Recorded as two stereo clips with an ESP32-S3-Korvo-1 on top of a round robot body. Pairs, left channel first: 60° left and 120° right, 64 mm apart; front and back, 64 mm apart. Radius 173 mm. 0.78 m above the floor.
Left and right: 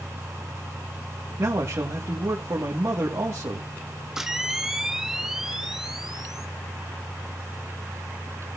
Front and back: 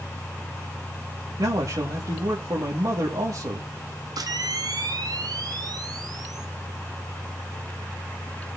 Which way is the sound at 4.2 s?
155° left.